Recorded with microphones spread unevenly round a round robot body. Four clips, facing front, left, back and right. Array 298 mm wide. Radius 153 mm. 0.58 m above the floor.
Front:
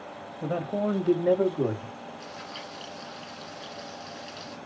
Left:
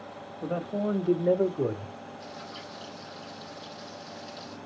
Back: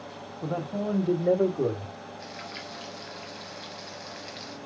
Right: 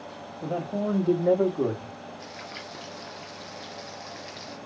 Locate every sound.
0.4 s a man speaking: 10° left, 1.4 m; by 1.9 s 70° right, 1.7 m
2.2 s frying: 105° right, 2.5 m